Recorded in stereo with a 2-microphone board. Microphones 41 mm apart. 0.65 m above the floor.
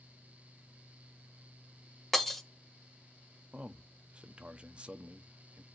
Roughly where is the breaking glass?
Centre.